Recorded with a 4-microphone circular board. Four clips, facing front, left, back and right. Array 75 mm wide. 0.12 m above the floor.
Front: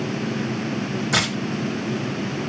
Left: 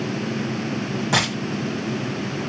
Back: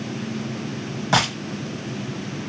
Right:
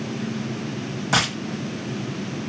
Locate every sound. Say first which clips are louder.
1.1 s a dropped coin: right 1 dB, back 5 dB; 175° left, 1.7 m